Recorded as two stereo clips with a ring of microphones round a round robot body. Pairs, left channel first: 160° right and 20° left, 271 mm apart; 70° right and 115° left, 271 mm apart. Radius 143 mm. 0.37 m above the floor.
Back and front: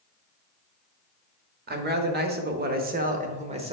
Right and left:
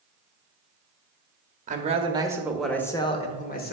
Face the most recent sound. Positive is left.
turn(degrees=-35)